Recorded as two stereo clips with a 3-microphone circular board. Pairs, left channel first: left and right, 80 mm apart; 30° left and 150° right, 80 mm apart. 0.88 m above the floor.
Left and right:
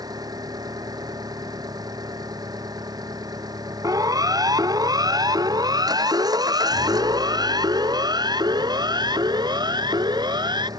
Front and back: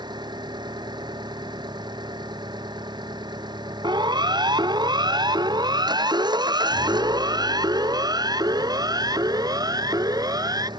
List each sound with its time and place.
0.0 s an engine running: 125° right
3.8 s a siren: 130° right; by 10.7 s 115° right